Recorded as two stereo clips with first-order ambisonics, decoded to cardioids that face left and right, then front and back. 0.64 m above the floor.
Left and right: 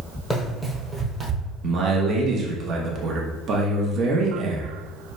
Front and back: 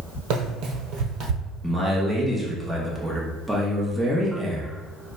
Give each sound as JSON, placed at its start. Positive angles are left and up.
{"t": 0.3, "sound": "running footsteps", "azimuth_deg": 165, "distance_m": 1.2}
{"t": 1.6, "sound": "a man speaking", "azimuth_deg": -100, "distance_m": 0.7}